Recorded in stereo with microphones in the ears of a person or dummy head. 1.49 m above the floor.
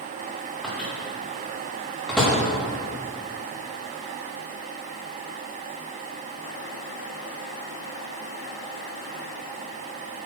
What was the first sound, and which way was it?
A microwave, centre (ahead or behind).